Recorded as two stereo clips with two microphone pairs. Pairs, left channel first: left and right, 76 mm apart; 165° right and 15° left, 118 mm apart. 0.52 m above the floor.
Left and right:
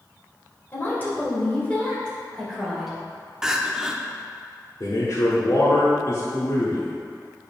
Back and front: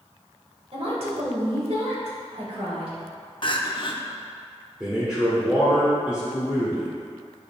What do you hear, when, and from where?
0.7 s a woman speaking: 35° left, 2.5 m; by 2.9 s straight ahead, 2.5 m
3.4 s crying: 170° right, 0.6 m
4.8 s a man speaking: 95° left, 1.6 m